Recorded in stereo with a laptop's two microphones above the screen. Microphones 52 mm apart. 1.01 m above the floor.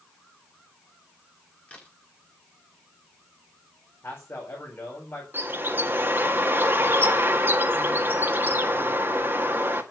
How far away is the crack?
About 1.7 m.